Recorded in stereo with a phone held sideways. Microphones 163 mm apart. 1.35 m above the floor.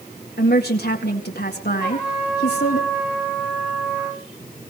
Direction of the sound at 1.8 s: 5° right (ahead or behind).